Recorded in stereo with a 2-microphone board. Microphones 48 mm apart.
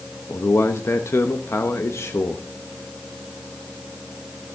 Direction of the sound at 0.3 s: 70° left (ahead or behind).